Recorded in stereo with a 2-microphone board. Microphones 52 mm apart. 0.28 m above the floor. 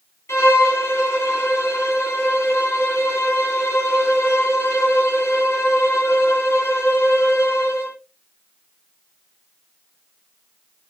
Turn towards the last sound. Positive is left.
turn(degrees=60)  # may be behind; listen again after turning